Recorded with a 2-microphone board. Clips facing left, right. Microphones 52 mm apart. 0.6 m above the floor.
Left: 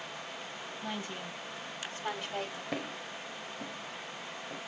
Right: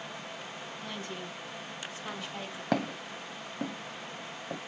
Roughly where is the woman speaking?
Centre.